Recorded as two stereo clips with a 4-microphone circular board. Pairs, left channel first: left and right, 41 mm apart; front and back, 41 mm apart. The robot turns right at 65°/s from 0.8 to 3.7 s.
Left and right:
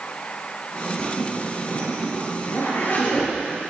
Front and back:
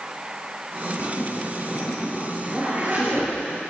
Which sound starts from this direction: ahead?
A zipper, at 1.0 s.